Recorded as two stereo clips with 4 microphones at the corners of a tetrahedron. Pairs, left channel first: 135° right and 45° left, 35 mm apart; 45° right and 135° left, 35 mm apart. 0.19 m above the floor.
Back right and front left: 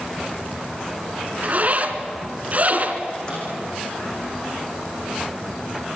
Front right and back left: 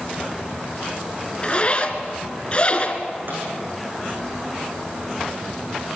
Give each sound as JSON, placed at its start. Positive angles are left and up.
{"t": 1.4, "sound": "a zipper", "azimuth_deg": 10, "distance_m": 2.5}
{"t": 3.3, "sound": "a microwave", "azimuth_deg": 160, "distance_m": 9.0}